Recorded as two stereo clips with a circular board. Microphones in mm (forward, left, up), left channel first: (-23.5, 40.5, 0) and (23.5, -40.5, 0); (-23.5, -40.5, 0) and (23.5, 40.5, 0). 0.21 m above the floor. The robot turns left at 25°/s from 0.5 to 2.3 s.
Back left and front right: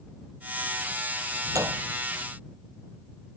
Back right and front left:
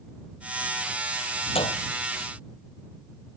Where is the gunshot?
115° right; by 1.8 s 120° right.